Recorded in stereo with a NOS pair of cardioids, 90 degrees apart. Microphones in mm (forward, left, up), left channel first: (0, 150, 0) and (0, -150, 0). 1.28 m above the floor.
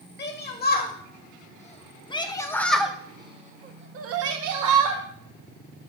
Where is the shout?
35° left, 2 m; by 5.0 s 80° right, 1.0 m.